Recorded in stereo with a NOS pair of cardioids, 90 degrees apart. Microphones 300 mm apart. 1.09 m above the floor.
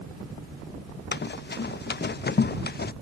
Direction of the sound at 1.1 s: 35° left.